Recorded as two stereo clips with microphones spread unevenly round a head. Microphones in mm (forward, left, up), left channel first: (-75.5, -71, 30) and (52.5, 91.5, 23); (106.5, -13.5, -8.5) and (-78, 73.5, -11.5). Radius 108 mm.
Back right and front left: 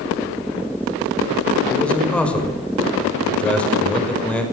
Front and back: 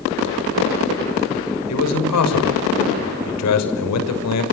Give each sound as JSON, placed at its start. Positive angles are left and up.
{"t": 1.7, "sound": "a man speaking", "azimuth_deg": -45, "distance_m": 6.0}